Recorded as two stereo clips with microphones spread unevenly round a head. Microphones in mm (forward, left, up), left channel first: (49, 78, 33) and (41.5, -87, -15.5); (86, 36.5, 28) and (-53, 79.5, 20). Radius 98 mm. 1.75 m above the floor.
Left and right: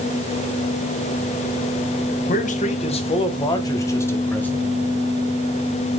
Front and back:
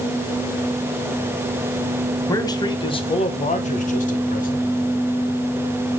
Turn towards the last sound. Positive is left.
turn(degrees=5)